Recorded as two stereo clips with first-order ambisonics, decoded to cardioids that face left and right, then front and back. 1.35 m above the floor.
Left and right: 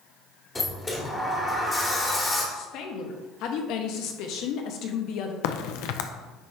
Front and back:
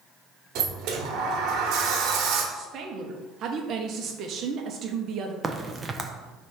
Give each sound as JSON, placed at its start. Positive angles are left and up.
{"t": 0.6, "sound": "a sliding door", "azimuth_deg": 165, "distance_m": 1.3}
{"t": 2.5, "sound": "a woman speaking", "azimuth_deg": 125, "distance_m": 1.0}
{"t": 5.4, "sound": "a crack", "azimuth_deg": 105, "distance_m": 0.7}